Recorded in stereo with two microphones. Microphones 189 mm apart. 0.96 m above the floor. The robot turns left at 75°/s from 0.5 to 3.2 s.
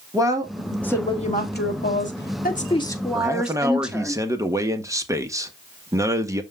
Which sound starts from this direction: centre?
A man speaking, at 3.1 s.